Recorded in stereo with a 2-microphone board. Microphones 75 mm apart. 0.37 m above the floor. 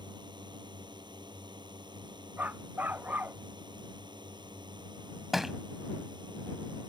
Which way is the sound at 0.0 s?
80° right.